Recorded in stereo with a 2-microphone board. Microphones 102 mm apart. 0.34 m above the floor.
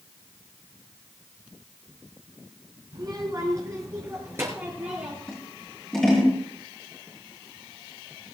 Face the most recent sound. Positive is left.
turn(degrees=5)  # may be behind; listen again after turning